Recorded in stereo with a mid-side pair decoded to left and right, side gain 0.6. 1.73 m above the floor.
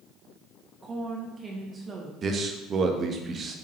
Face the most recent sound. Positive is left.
turn(degrees=-40)